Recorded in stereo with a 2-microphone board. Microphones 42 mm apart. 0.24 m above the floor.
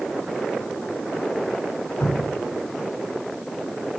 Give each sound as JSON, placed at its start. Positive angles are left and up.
{"t": 2.0, "sound": "dripping", "side_deg": 65, "distance_m": 1.0}